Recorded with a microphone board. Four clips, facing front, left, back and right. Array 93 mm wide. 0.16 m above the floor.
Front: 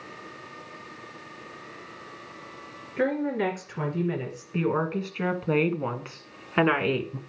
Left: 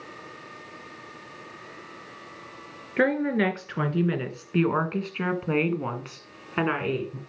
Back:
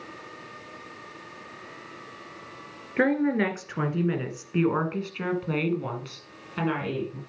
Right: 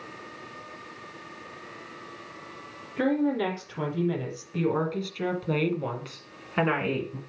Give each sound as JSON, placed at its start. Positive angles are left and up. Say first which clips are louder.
{"t": 3.0, "sound": "a woman speaking", "louder": "left 2 dB, back 3 dB", "azimuth_deg": 125, "distance_m": 2.0}